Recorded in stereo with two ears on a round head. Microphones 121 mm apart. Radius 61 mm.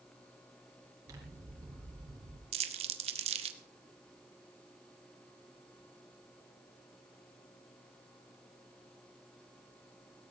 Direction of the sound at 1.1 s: 25° right (ahead or behind).